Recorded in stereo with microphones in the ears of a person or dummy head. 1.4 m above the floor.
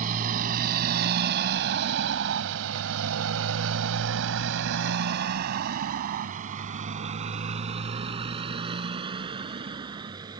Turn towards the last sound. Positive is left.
turn(degrees=-20)  # may be behind; listen again after turning